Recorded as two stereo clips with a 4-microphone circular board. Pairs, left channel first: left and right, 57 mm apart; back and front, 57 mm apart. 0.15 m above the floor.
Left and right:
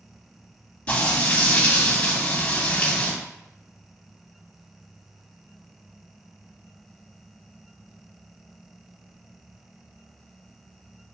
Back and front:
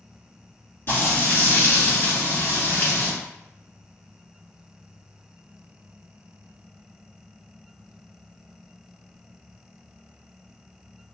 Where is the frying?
150° left, 1.9 m.